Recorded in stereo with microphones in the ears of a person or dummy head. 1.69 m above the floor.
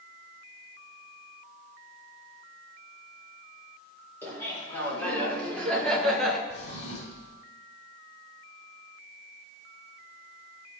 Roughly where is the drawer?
Left.